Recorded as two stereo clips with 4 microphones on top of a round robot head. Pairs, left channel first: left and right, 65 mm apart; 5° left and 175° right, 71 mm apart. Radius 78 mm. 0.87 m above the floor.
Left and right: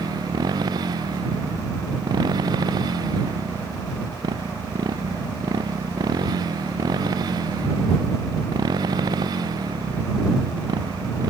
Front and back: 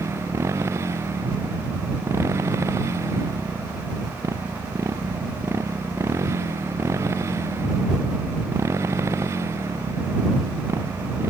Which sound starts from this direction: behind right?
A motorcycle, at 0.0 s.